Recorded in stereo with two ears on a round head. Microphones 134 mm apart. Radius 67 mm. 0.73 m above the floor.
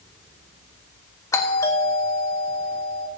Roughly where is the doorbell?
Left.